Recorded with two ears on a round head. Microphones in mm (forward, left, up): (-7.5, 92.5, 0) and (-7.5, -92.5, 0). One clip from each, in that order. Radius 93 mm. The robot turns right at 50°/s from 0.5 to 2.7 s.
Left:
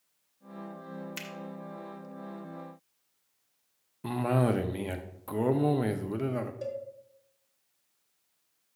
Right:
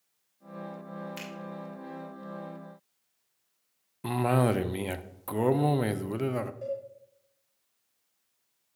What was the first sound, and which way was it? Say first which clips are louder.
A finger snap: even; 15° left (ahead or behind).